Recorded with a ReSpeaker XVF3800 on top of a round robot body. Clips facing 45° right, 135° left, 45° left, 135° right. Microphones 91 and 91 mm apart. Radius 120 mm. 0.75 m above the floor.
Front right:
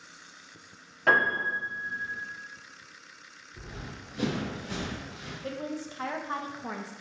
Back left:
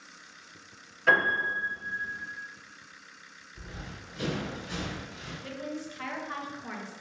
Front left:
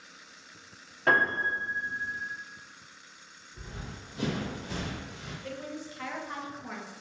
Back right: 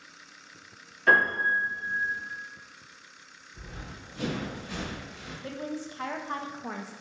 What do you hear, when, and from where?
1.1 s a piano: 5° right, 1.6 m
3.5 s running footsteps: 40° right, 1.7 m; by 5.3 s 30° left, 1.4 m
5.4 s a woman speaking: 90° right, 0.6 m